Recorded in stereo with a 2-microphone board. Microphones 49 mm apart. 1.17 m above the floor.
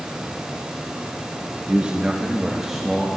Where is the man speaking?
30° right (ahead or behind), 1.0 m; by 3.1 s 5° right (ahead or behind), 1.7 m.